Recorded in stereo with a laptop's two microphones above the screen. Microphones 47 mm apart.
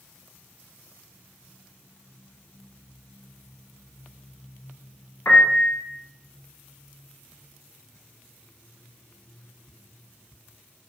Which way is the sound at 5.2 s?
60° left (ahead or behind).